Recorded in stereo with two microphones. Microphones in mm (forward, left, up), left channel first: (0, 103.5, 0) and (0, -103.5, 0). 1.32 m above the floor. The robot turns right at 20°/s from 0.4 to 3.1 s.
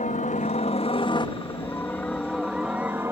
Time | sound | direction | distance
0.0 | a helicopter | 140° left | ?